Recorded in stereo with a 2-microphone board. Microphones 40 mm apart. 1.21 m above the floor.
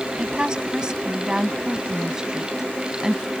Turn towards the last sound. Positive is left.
turn(degrees=-15)  # may be behind; listen again after turning